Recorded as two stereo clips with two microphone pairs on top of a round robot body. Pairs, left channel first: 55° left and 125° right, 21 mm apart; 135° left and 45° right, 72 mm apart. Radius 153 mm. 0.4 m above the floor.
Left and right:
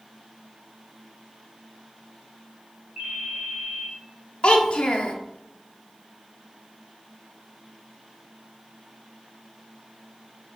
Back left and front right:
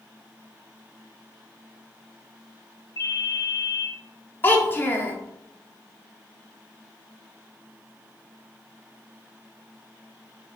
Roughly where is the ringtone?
Behind.